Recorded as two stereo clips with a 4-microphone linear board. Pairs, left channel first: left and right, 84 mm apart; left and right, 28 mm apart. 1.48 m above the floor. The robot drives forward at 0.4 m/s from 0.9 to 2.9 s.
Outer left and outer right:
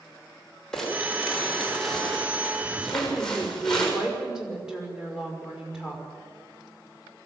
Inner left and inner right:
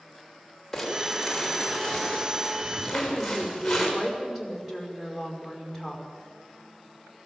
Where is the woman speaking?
5° right (ahead or behind), 5.5 m.